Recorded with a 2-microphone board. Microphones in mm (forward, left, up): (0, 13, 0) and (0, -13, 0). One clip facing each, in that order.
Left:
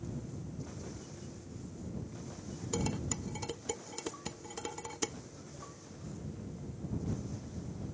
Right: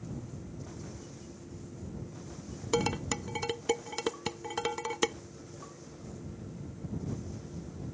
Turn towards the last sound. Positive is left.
turn(degrees=-40)  # may be behind; listen again after turning